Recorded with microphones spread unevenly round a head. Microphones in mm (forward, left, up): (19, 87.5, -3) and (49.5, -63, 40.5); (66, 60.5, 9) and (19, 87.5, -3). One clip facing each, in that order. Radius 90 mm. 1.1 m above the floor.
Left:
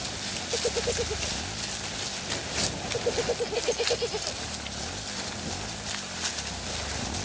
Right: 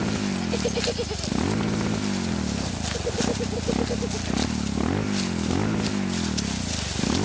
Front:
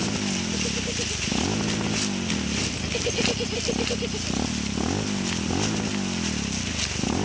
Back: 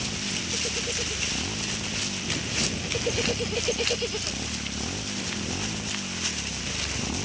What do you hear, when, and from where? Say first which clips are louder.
0.0 s a motorcycle: right 13 dB, front 6 dB; 80° right; by 7.2 s 85° right